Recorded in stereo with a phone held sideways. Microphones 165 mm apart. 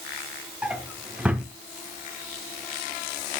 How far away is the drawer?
About 1.5 m.